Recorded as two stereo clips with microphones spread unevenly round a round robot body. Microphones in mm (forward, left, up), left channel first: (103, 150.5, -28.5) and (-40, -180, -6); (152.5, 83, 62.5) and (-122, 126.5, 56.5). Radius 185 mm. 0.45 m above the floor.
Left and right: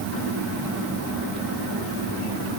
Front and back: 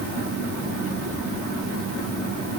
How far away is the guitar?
I don't hear a guitar.